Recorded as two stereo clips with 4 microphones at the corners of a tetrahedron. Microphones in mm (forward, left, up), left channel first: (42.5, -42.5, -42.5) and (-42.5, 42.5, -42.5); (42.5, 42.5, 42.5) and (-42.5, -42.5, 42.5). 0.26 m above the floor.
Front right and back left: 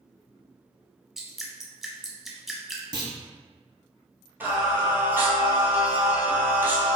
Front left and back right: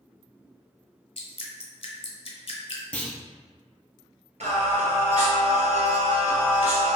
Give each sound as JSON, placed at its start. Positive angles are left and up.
{"t": 1.2, "sound": "dripping", "azimuth_deg": 50, "distance_m": 0.7}
{"t": 2.9, "sound": "a clunk", "azimuth_deg": 120, "distance_m": 0.6}
{"t": 4.4, "sound": "singing", "azimuth_deg": -155, "distance_m": 1.1}